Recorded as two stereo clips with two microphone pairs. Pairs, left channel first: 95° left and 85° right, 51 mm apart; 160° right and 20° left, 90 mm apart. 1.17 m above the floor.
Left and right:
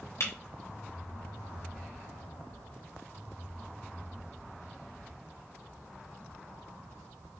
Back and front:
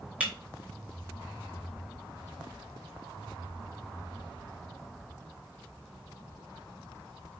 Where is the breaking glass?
100° left, 3.5 m.